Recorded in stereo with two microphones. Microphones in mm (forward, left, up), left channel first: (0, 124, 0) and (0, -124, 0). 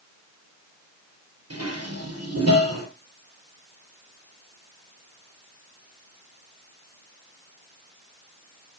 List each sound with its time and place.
1.5 s dishes clattering: 75° right (ahead or behind), 4 m